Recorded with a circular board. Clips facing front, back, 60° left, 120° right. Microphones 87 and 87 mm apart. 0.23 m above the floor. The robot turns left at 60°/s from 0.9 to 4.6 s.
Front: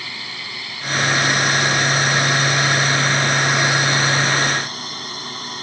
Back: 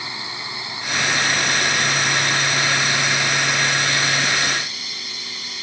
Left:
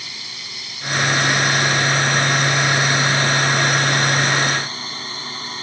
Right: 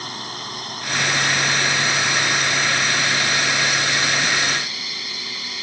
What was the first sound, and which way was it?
A drone, 120° right.